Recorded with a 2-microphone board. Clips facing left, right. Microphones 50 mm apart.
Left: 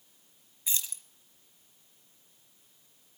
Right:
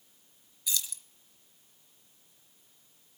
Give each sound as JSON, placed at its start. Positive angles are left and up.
{"t": 0.7, "sound": "keys jangling", "side_deg": 30, "distance_m": 1.1}